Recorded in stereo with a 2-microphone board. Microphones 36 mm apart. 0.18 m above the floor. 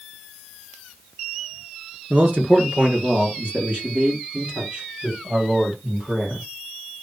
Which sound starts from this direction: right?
A man speaking, at 2.1 s.